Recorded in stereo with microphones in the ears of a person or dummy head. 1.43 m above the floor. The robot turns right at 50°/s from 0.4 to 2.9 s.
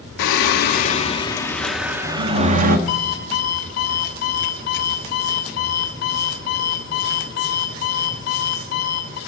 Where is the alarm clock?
50° left (ahead or behind), 4 m.